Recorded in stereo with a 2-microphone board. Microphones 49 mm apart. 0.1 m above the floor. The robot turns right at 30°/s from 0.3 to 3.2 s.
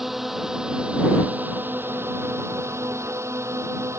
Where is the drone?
175° right; by 4.0 s 85° right.